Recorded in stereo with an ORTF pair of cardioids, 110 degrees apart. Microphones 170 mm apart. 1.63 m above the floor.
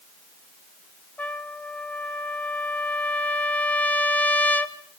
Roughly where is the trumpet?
Ahead.